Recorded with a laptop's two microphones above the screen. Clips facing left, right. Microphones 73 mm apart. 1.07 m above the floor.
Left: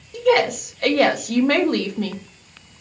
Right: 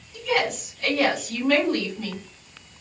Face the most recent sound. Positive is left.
turn(degrees=60)  # may be behind; listen again after turning